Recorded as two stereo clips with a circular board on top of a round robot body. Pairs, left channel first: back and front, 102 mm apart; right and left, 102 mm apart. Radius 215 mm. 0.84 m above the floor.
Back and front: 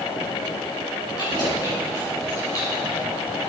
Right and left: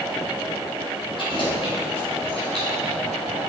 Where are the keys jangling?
130° right, 5 m; by 3.0 s 120° right, 5 m.